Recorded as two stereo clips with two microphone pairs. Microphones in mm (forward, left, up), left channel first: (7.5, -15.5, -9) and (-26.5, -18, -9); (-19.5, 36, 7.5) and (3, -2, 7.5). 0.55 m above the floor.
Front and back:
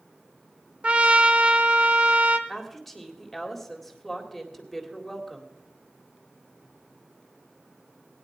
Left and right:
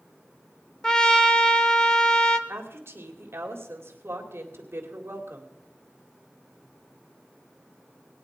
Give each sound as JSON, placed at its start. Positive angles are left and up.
{"t": 0.8, "sound": "a trumpet", "azimuth_deg": 175, "distance_m": 0.9}
{"t": 2.5, "sound": "a woman speaking", "azimuth_deg": -80, "distance_m": 2.0}